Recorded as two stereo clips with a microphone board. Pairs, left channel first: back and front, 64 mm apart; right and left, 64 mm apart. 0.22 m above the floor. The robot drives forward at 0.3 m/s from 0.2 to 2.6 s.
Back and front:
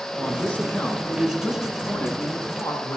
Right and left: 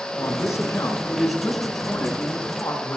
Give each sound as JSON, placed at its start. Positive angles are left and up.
{"t": 0.2, "sound": "a man speaking", "azimuth_deg": -115, "distance_m": 2.5}